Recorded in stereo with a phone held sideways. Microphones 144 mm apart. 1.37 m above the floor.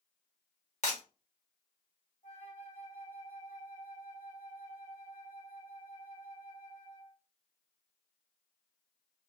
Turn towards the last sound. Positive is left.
turn(degrees=60)  # may be behind; listen again after turning